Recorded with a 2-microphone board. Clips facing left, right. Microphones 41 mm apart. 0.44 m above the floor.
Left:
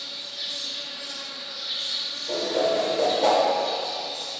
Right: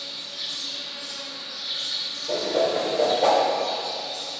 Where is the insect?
10° left (ahead or behind), 1.1 m.